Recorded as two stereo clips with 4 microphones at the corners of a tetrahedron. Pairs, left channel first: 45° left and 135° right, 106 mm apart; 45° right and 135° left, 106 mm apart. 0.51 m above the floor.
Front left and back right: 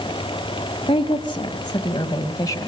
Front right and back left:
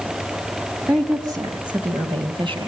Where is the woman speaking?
80° left, 3 m; by 2.7 s 105° left, 3 m.